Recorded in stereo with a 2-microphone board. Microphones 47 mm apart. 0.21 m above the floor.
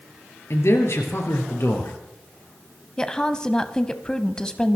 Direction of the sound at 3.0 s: 20° left (ahead or behind).